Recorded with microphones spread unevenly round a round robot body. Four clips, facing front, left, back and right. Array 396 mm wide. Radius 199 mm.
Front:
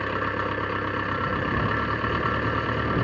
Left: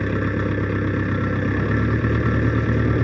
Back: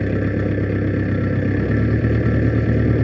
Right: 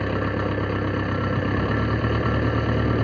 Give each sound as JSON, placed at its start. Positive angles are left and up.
{"t": 0.0, "sound": "an engine running", "azimuth_deg": 165}